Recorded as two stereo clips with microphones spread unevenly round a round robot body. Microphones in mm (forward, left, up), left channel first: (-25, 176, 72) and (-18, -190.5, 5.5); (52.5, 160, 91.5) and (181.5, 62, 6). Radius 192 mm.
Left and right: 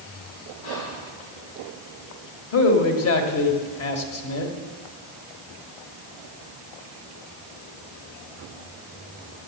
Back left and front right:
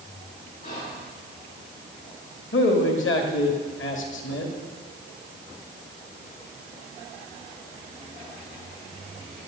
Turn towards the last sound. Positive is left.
turn(degrees=145)